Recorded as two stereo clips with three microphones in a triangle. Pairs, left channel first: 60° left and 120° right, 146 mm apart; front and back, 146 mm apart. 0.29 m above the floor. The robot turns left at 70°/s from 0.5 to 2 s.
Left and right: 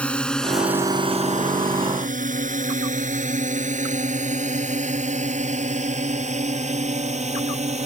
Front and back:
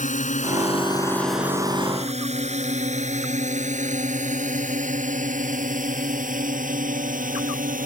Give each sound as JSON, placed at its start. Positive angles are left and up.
{"t": 0.0, "sound": "a drone", "azimuth_deg": -20}